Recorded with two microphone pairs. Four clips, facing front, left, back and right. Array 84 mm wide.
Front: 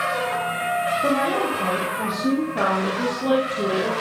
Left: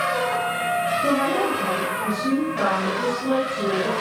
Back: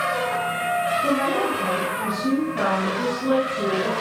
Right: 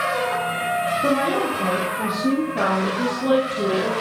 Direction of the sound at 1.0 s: 25° right.